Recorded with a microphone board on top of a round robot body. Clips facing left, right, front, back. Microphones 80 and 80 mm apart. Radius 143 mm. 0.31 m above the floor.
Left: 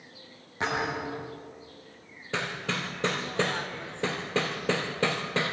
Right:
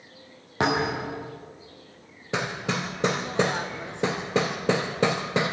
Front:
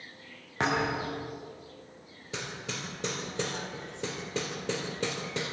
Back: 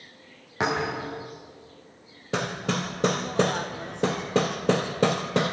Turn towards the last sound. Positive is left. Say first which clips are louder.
# right 4 dB, back 11 dB
turn(degrees=-160)